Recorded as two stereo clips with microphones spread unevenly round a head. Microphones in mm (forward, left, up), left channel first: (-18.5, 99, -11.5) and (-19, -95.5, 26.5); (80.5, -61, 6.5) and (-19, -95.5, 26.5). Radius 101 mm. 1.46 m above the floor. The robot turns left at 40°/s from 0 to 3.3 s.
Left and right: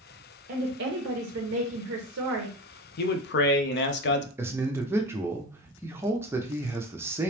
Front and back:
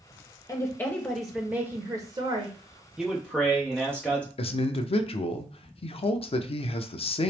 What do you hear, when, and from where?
0.5 s a woman speaking: 45° right, 0.8 m; by 2.9 s 140° right, 0.8 m
3.0 s a man speaking: 110° left, 0.6 m; by 4.3 s 95° left, 0.6 m
4.4 s a man speaking: 10° right, 0.6 m